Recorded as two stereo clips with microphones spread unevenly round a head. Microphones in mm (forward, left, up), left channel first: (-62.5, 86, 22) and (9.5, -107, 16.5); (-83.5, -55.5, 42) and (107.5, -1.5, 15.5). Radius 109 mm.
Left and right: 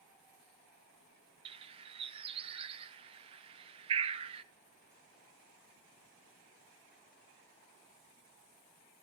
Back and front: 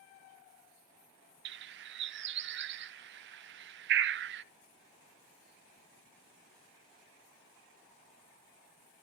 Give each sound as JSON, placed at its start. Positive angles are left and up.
{"t": 1.4, "sound": "a bird", "azimuth_deg": -5, "distance_m": 0.6}